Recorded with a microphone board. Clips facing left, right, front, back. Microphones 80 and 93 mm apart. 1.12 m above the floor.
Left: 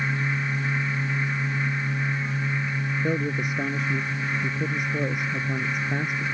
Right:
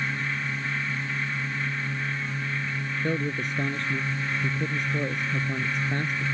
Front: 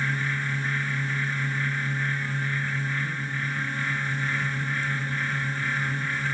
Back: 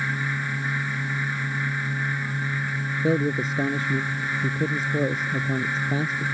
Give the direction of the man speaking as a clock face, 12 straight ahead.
6 o'clock.